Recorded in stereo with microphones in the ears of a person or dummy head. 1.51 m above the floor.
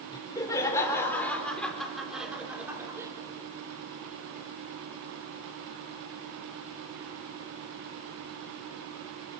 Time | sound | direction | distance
0.1 | laughter | 20° left (ahead or behind) | 4.5 m